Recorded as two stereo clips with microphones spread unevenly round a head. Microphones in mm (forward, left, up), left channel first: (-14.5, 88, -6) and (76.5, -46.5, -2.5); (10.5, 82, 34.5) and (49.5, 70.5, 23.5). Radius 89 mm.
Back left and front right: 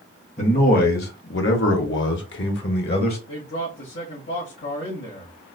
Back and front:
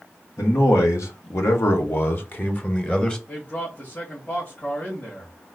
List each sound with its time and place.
0.4 s a man speaking: 175° left, 1.2 m; by 3.2 s 95° left, 1.2 m
3.3 s a man speaking: 115° left, 1.8 m